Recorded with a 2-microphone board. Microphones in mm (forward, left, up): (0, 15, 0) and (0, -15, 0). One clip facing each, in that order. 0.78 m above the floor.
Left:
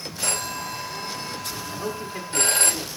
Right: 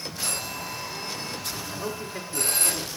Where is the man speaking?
Centre (ahead or behind), 1.2 m.